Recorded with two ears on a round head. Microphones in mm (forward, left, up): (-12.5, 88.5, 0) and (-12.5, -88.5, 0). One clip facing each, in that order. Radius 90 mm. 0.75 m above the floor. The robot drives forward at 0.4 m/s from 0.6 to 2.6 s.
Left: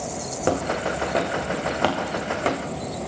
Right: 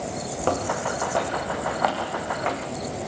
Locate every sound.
0.5 s footsteps: 15° left (ahead or behind), 4 m; by 3.1 s 50° left (ahead or behind), 4 m